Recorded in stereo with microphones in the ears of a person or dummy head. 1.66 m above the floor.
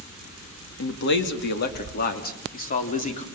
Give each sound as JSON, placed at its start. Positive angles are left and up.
{"t": 0.8, "sound": "a man speaking", "side_deg": 70, "distance_m": 2.5}